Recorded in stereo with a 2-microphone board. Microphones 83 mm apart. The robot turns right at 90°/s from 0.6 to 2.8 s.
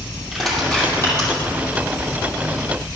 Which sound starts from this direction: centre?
Crushing, at 0.3 s.